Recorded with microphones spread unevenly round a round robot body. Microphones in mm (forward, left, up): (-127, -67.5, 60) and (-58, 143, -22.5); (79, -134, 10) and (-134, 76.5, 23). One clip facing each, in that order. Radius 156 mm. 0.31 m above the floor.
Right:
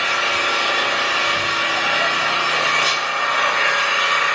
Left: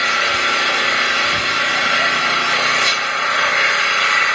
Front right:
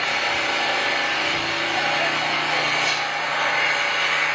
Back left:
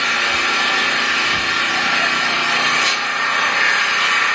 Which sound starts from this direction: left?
An engine running, at 0.0 s.